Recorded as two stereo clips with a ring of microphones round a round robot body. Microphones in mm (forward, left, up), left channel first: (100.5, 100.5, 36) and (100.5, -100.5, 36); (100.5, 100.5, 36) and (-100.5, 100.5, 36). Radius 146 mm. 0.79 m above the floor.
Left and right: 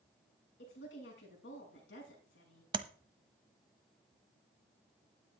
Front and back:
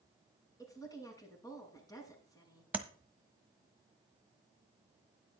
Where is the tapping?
110° right, 1.1 m.